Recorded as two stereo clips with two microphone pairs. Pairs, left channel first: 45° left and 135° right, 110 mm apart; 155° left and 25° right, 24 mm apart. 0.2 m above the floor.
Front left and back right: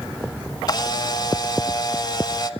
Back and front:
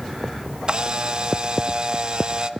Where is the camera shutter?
10° left, 1.1 m.